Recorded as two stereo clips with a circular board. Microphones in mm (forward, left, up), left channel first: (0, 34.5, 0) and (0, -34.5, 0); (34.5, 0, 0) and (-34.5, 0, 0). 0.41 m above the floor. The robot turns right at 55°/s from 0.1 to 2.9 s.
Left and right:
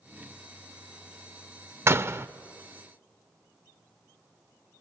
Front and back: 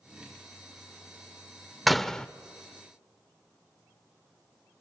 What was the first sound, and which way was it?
A door slam, 95° right.